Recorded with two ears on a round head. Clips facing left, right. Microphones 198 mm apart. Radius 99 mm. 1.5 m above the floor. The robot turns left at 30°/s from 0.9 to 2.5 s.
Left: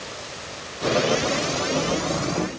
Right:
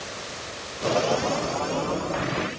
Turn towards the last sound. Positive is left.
No sound to turn to.